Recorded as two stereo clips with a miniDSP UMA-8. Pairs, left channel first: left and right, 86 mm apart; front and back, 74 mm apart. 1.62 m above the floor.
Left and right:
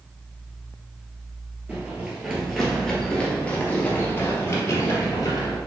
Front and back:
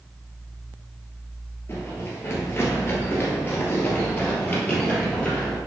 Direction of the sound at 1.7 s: 25° right.